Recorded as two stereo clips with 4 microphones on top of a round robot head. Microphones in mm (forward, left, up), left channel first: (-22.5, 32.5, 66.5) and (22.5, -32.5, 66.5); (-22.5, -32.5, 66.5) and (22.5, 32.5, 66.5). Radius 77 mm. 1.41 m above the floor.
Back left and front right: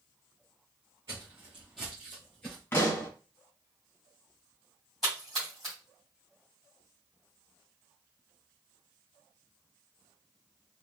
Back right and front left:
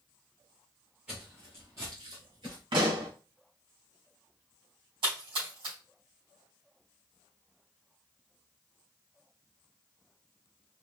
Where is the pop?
60° left, 1.7 m.